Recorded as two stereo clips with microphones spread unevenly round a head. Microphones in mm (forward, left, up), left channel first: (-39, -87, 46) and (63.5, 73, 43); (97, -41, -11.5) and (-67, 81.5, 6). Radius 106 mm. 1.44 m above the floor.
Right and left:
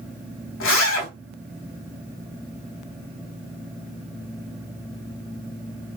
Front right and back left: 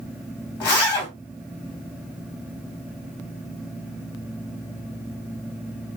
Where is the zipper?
105° right, 2.5 m.